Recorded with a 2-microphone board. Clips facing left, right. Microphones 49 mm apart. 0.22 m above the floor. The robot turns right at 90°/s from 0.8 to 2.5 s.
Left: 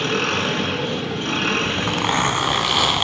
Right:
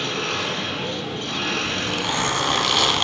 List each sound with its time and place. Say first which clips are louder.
0.0 s an engine running: left 4 dB; 65° left, 1.7 m; by 3.0 s 145° right, 1.7 m
1.6 s a zipper: left 3 dB; 85° left, 1.0 m; by 3.0 s 165° left, 1.0 m